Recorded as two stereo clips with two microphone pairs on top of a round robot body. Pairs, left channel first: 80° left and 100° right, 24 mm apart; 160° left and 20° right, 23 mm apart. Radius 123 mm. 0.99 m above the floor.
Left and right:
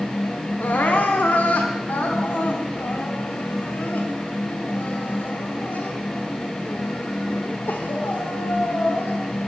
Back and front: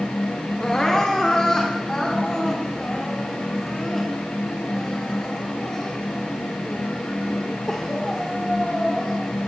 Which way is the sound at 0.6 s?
85° left.